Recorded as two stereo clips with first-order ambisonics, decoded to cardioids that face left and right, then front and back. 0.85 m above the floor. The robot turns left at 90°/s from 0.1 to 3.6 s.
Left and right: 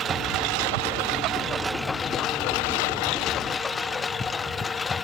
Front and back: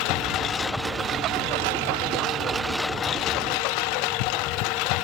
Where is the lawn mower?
30° right; by 5.0 s 15° left.